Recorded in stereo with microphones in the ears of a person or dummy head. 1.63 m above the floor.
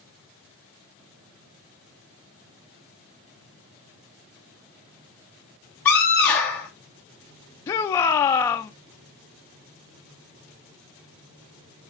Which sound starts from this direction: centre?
A scream, at 5.8 s.